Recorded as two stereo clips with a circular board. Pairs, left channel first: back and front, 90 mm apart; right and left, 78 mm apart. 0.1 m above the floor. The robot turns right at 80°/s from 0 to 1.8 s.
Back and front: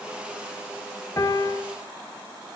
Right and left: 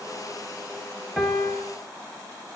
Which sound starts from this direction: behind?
A piano, at 1.2 s.